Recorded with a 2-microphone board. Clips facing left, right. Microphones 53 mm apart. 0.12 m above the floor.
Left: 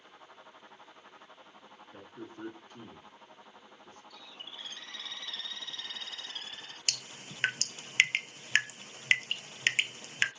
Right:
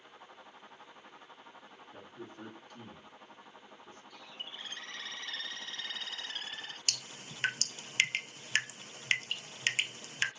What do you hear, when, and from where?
1.9 s a man speaking: 15° left (ahead or behind), 1.7 m; by 4.0 s 45° left (ahead or behind), 2 m
4.1 s a bird: 35° right (ahead or behind), 1.0 m
6.9 s dripping: 30° left (ahead or behind), 0.5 m